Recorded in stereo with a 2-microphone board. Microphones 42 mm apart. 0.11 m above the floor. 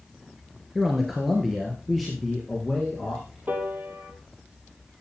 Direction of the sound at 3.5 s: 45° right (ahead or behind).